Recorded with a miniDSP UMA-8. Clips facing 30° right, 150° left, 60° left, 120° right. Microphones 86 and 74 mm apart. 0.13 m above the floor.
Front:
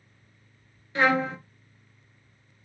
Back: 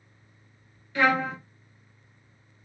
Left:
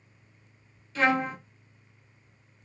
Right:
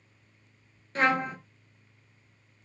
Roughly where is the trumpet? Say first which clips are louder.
Even, left 1 dB; right.